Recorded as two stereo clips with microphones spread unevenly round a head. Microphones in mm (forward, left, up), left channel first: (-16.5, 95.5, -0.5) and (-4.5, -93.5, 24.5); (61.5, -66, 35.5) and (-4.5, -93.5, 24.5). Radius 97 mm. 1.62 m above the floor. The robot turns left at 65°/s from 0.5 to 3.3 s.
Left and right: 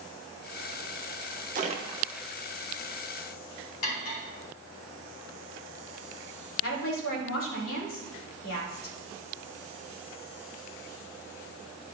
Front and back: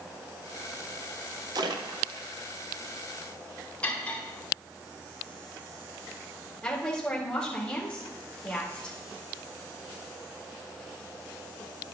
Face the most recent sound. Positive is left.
turn(degrees=110)